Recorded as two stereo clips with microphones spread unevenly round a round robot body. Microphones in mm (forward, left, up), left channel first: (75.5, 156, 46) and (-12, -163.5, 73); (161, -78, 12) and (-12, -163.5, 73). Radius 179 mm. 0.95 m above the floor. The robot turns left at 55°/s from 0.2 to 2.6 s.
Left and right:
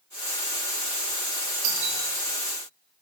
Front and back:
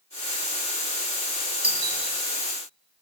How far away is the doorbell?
About 4 m.